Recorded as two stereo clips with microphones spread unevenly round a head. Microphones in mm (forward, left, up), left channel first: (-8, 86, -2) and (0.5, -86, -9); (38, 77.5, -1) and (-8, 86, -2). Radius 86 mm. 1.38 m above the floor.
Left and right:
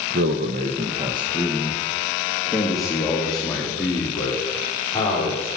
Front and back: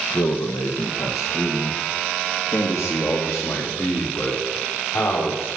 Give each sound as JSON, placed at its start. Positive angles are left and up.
{"t": 0.1, "sound": "a man speaking", "azimuth_deg": -55, "distance_m": 0.9}